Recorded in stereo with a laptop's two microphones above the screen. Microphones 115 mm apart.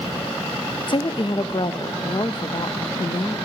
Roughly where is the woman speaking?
Left.